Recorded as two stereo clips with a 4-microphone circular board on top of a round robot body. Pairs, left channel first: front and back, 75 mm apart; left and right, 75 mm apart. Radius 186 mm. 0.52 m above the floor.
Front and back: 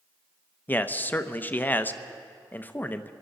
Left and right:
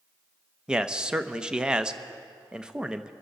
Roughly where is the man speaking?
Ahead.